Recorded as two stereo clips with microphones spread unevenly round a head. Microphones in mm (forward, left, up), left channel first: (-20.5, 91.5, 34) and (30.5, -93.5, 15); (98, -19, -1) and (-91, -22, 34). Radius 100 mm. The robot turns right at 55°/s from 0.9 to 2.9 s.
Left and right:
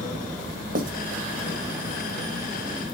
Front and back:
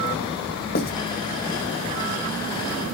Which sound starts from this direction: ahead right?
Writing, at 0.8 s.